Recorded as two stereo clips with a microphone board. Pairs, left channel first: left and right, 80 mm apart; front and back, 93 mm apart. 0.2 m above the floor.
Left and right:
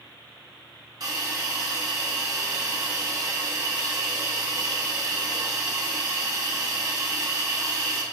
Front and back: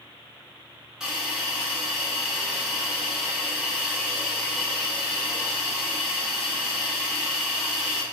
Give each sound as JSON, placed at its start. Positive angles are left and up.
{"t": 1.0, "sound": "a hiss", "azimuth_deg": -100, "distance_m": 0.5}